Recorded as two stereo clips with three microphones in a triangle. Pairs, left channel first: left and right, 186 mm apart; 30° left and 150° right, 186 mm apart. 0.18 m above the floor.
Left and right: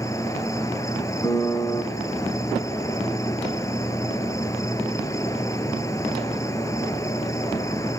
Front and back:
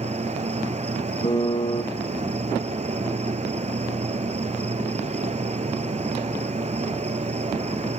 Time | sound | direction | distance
0.0 | an insect | 160° left | 1.1 m
1.2 | a piano | 40° left | 1.7 m